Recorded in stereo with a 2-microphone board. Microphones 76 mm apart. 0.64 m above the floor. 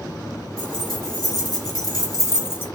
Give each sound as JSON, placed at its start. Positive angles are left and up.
{"t": 0.6, "sound": "keys jangling", "side_deg": 50, "distance_m": 1.6}